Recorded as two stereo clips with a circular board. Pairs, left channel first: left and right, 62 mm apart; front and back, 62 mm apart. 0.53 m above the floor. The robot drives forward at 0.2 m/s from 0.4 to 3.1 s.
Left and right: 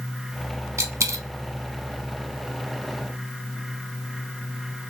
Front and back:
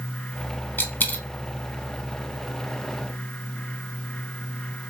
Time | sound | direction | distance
0.8 | a dropped coin | 55° right | 0.6 m